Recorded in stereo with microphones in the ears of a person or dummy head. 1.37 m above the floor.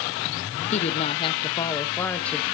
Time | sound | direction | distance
0.7 | a woman speaking | 40° left (ahead or behind) | 1.5 m